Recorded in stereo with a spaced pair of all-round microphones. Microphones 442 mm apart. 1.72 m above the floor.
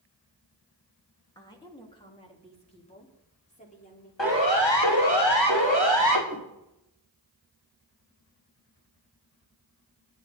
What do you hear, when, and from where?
1.4 s a woman speaking: 10° left (ahead or behind), 3 m; by 4.1 s 15° left (ahead or behind), 5 m
4.2 s a siren: 80° left, 4.5 m
6.3 s a whoosh: 20° left (ahead or behind), 7 m